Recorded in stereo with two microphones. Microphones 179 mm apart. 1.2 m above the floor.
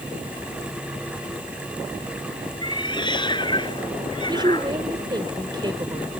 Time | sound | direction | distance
2.6 | a cat meowing | 30° left (ahead or behind) | ?
4.3 | a woman speaking | 25° right (ahead or behind) | ?